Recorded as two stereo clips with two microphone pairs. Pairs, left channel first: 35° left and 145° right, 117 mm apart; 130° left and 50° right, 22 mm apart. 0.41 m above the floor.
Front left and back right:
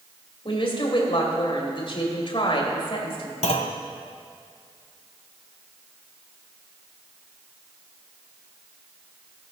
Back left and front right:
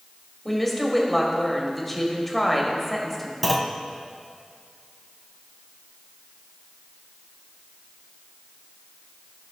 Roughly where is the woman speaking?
Ahead left.